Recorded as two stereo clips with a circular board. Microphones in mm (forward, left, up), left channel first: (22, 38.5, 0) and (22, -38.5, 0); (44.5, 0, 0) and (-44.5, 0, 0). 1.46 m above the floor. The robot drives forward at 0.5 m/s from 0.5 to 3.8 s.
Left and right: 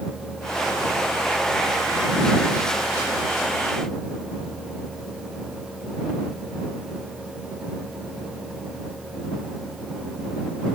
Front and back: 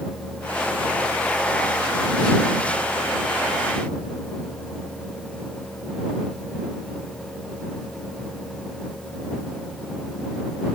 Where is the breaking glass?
No breaking glass in this recording.